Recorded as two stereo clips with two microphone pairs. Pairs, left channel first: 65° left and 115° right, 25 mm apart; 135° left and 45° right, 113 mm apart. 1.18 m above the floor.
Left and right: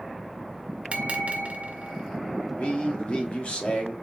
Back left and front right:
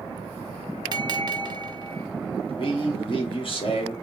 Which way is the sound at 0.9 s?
90° right.